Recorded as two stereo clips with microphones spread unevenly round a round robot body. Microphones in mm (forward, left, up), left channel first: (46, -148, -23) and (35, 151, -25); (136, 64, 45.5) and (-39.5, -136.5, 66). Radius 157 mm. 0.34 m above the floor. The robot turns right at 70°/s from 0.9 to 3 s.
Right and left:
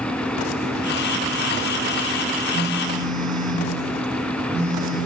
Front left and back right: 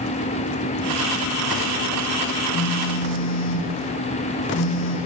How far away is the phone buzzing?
About 5 m.